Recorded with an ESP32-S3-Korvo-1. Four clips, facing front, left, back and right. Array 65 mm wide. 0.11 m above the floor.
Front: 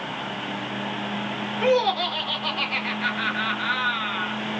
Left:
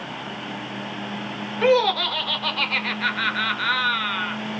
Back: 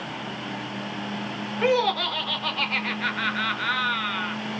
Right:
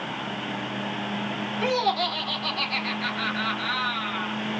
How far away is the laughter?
About 1.2 m.